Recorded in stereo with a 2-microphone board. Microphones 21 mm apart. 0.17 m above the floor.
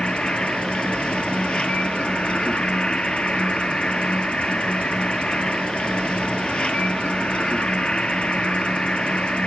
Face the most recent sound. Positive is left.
turn(degrees=50)  # may be behind; listen again after turning